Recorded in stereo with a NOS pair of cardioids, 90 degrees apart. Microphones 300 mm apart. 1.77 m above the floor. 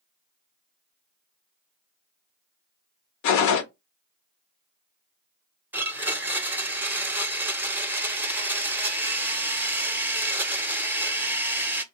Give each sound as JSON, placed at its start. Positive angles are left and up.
{"t": 3.2, "sound": "a gunshot", "azimuth_deg": 65, "distance_m": 0.6}
{"t": 5.7, "sound": "a blender", "azimuth_deg": -5, "distance_m": 0.6}